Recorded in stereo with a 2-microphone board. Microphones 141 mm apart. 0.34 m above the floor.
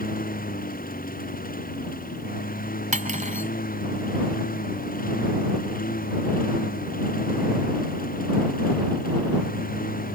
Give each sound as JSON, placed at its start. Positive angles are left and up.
{"t": 0.0, "sound": "a lawn mower", "side_deg": 85}
{"t": 2.9, "sound": "cutlery clinking", "side_deg": -65}